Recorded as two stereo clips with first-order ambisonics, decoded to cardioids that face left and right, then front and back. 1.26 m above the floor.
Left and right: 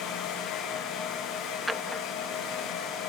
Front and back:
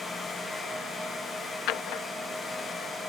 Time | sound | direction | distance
1.7 | a drawer | 5° right | ?